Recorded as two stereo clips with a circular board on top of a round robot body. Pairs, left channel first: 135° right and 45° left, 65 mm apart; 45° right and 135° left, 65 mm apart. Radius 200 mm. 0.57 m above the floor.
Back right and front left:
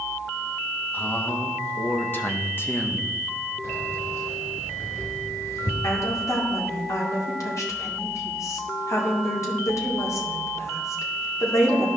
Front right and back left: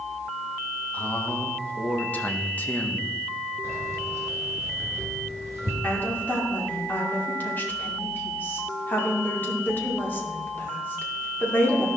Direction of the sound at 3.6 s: 175° right.